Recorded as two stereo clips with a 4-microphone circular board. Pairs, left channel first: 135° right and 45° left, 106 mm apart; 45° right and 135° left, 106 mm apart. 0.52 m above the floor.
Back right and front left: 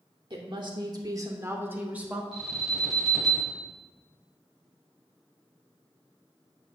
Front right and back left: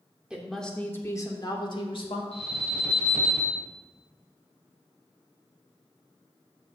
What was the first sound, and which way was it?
A woman speaking, 55° left.